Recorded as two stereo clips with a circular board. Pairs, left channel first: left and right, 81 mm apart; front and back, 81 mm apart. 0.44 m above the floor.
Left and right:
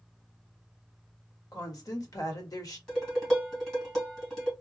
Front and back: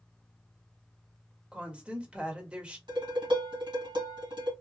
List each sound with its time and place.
1.5 s a woman speaking: 105° left, 1.3 m
2.9 s dishes clattering: 170° left, 2 m